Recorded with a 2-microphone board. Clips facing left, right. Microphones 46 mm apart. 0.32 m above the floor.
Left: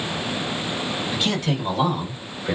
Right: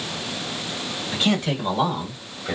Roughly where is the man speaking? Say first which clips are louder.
Right 4 dB; centre.